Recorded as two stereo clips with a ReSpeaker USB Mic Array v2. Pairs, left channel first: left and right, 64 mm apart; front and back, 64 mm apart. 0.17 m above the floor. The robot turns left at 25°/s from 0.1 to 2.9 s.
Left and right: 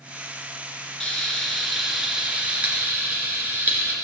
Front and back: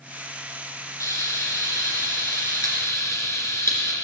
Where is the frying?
15° left, 2 m; by 4.0 s 30° right, 2 m.